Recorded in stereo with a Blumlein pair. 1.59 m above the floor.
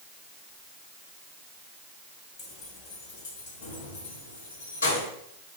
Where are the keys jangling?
25° left, 2 m; by 5.1 s 65° left, 3 m.